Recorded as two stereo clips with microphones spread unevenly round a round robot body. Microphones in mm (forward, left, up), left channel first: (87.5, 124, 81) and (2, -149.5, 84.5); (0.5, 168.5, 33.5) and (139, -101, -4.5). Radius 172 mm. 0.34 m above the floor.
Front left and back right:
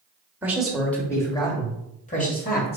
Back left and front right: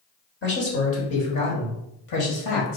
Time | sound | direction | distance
0.4 | a man speaking | 170° left | 1.4 m